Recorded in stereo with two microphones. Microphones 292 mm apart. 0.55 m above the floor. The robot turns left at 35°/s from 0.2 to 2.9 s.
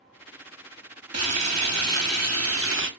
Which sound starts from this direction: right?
Frying, at 1.1 s.